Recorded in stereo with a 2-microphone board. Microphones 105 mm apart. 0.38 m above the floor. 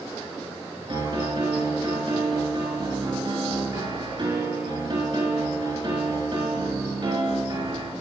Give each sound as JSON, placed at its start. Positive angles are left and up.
{"t": 0.9, "sound": "a piano", "side_deg": -45, "distance_m": 4.0}